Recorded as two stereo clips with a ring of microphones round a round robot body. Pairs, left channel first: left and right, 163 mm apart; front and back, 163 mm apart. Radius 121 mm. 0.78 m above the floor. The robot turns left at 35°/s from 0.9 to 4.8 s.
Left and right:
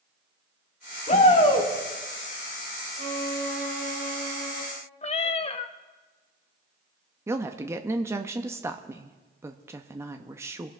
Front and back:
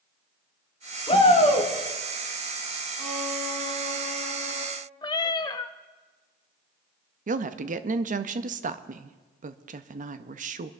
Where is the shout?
55° left, 2.5 m; by 1.7 s 30° left, 2.5 m.